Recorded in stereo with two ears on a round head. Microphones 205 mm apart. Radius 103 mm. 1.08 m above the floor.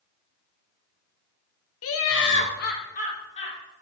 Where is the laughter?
65° left (ahead or behind), 0.9 m; by 3.6 s 30° left (ahead or behind), 1.8 m.